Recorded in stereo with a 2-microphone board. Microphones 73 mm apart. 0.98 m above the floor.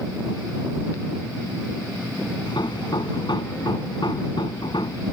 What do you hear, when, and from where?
2.5 s hammering: 85° left